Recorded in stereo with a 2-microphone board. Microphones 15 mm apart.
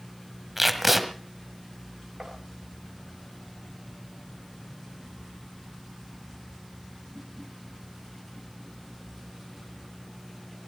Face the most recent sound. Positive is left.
turn(degrees=-60)  # may be behind; listen again after turning